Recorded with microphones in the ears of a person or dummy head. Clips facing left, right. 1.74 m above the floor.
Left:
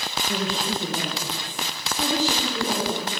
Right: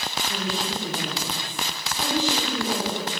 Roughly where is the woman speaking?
Left.